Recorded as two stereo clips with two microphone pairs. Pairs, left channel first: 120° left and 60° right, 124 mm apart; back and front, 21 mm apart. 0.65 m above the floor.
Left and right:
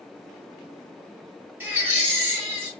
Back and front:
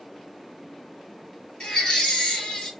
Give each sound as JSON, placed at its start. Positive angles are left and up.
{"t": 1.6, "sound": "a baby crying", "azimuth_deg": -135, "distance_m": 2.0}